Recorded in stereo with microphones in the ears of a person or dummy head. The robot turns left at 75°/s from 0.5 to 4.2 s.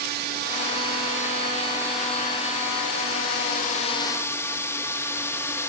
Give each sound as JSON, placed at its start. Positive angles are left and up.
{"t": 0.0, "sound": "a drone", "azimuth_deg": -65}